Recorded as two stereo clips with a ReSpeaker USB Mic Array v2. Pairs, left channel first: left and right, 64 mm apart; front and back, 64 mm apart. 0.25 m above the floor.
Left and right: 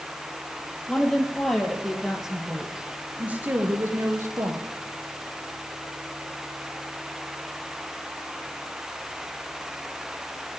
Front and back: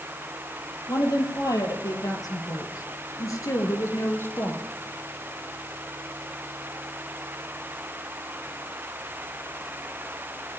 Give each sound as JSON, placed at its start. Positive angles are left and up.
{"t": 0.9, "sound": "a woman speaking", "azimuth_deg": 10, "distance_m": 5.5}